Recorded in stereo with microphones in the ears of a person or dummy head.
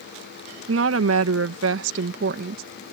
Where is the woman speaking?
70° right (ahead or behind); by 2.6 s 50° right (ahead or behind).